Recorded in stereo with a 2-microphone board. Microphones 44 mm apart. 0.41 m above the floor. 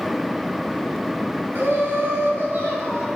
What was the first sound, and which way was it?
Laughter, 65° right (ahead or behind).